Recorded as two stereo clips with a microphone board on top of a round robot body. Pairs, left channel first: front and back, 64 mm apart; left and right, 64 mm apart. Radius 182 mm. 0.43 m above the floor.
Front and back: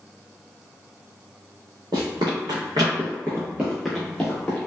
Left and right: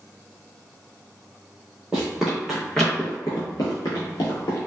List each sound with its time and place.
1.9 s running footsteps: 165° right, 1.0 m; by 4.6 s 70° left, 1.0 m